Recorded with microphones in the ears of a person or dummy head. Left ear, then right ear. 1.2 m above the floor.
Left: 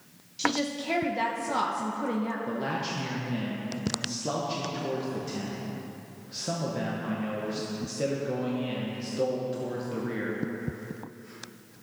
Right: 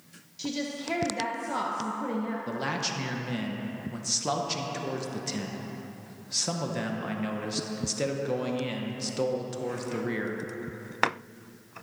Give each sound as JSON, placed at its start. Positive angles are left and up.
{"t": 0.4, "sound": "a woman speaking", "side_deg": 5, "distance_m": 0.7}
{"t": 2.5, "sound": "a man speaking", "side_deg": -30, "distance_m": 0.9}